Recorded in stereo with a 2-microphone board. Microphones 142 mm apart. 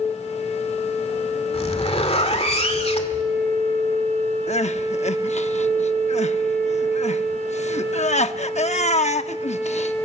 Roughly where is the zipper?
Left.